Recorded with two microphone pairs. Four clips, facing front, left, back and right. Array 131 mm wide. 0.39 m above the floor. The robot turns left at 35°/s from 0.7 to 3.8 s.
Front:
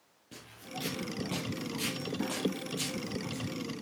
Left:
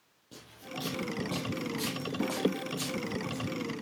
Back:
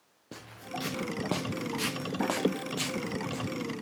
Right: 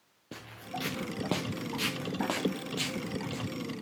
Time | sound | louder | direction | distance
0.3 | footsteps | right 3 dB, back 5 dB | 140° right | 3 m